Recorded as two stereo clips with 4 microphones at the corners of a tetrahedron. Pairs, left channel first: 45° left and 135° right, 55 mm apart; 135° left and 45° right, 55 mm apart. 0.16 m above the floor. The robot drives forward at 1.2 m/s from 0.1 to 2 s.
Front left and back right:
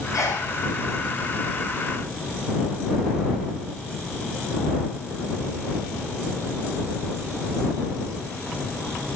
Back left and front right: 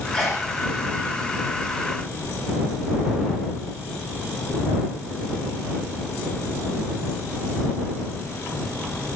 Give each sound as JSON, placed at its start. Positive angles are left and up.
{"t": 0.1, "sound": "a sneeze", "azimuth_deg": 70, "distance_m": 4.5}